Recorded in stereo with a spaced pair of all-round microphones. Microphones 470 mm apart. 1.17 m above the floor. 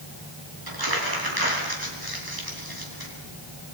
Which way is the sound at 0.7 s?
50° right (ahead or behind).